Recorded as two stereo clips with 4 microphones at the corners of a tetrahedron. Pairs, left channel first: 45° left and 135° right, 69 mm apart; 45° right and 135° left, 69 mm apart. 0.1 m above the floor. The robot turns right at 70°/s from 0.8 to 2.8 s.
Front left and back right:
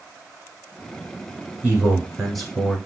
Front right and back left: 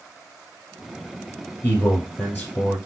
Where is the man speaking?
90° right, 1.5 m; by 2.8 s 10° right, 1.5 m.